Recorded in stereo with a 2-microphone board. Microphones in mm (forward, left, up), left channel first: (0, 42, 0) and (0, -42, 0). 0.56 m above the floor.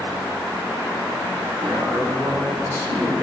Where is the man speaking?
55° right (ahead or behind), 5.5 m.